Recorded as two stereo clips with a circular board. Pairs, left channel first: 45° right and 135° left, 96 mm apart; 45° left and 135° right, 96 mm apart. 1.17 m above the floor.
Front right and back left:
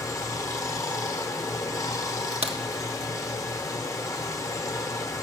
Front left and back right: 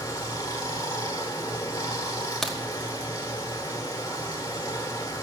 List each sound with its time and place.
0.0 s running water: 5° left, 1.1 m
2.4 s a crack: 130° left, 1.3 m